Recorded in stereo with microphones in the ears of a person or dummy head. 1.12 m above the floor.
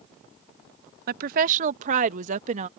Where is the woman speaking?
50° right (ahead or behind); by 2.7 s 45° right (ahead or behind).